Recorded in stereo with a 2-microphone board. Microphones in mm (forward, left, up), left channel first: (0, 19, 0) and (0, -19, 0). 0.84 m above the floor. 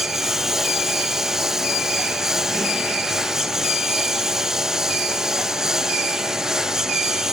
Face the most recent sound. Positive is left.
turn(degrees=-10)  # may be behind; listen again after turning